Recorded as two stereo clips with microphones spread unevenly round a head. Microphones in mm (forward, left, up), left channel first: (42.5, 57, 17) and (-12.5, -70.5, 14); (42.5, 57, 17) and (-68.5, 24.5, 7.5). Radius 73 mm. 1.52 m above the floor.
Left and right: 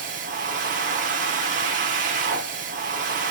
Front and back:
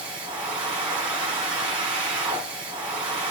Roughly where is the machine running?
Right.